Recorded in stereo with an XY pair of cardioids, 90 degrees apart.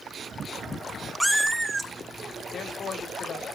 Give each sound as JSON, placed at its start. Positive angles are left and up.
{"t": 1.2, "sound": "a cat meowing", "azimuth_deg": -5, "distance_m": 0.9}
{"t": 2.5, "sound": "a man speaking", "azimuth_deg": 60, "distance_m": 2.0}